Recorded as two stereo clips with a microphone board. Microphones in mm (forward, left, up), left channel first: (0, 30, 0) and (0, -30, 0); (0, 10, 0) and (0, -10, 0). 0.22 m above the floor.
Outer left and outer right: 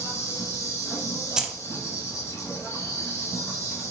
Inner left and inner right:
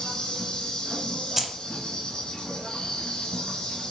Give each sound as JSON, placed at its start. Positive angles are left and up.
{"t": 0.0, "sound": "an insect", "side_deg": 55, "distance_m": 1.2}
{"t": 1.4, "sound": "keys jangling", "side_deg": -10, "distance_m": 0.6}